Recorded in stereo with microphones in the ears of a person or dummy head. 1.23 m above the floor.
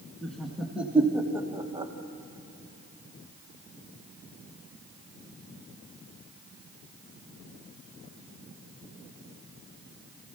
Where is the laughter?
Centre (ahead or behind), 1.9 m; by 1.9 s 25° right (ahead or behind), 1.2 m.